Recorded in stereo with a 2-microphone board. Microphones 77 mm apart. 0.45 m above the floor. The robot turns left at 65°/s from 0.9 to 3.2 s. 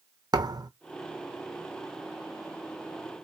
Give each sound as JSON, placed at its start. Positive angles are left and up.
{"t": 0.3, "sound": "a thud", "side_deg": -60, "distance_m": 0.8}